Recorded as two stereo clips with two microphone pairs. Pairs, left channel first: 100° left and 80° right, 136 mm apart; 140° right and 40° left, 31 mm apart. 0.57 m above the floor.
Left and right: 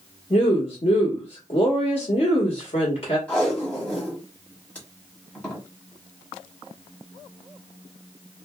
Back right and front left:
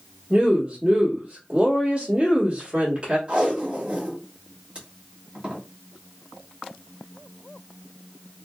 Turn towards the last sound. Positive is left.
turn(degrees=25)